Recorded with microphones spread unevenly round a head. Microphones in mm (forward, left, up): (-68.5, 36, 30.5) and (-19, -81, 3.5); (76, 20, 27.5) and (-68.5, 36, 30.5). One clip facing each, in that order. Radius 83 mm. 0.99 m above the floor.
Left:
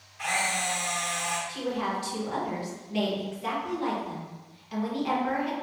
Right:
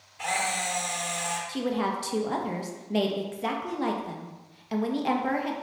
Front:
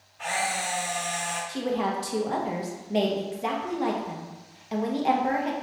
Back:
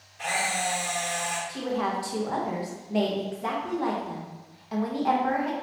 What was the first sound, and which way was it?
A camera shutter, 130° right.